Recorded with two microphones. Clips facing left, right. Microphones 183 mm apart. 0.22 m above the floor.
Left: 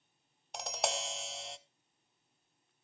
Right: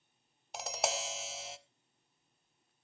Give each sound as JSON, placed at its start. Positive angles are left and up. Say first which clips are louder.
{"t": 0.5, "sound": "tapping", "louder": "even", "side_deg": 0, "distance_m": 0.8}